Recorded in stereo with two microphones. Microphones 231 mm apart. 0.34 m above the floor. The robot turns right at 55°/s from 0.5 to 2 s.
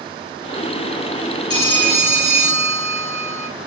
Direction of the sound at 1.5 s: 20° right (ahead or behind).